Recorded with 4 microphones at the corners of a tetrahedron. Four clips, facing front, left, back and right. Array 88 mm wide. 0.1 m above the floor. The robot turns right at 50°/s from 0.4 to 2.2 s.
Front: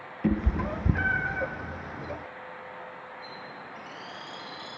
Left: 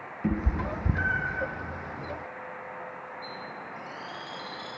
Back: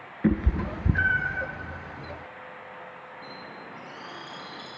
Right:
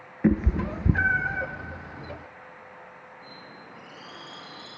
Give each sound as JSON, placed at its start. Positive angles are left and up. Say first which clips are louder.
{"t": 0.2, "sound": "a cat meowing", "louder": "right 6 dB, back 2 dB", "azimuth_deg": -110, "distance_m": 0.7}
{"t": 3.2, "sound": "a bird", "louder": "left 6 dB, even", "azimuth_deg": 170, "distance_m": 3.5}